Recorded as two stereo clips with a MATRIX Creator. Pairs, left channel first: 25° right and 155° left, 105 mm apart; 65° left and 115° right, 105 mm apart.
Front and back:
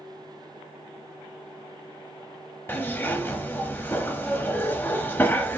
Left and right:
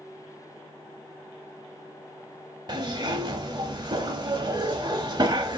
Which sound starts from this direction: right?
A zipper, at 2.7 s.